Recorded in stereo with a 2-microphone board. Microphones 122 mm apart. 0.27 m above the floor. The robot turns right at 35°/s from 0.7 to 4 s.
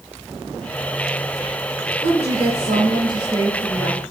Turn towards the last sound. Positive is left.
turn(degrees=-5)